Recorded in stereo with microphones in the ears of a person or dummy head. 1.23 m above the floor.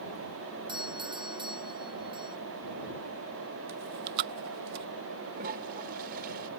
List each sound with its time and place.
0.7 s a doorbell: 15° right (ahead or behind)
3.7 s chewing: 50° right (ahead or behind)
5.3 s a toilet flushing: 55° right (ahead or behind)